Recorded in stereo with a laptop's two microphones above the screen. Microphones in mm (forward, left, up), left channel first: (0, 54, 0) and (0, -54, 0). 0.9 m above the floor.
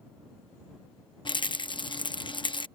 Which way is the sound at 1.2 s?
50° left (ahead or behind).